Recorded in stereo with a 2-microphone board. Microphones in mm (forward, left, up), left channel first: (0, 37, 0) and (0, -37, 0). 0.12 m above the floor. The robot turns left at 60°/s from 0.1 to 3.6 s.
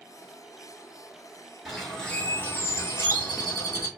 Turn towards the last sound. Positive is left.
turn(degrees=75)